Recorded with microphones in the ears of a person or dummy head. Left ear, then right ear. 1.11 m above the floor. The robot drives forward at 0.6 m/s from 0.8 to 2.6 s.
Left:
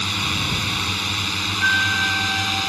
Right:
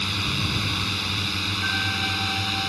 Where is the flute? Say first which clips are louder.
Left 9 dB; 45° left (ahead or behind); by 2.7 s 35° left (ahead or behind).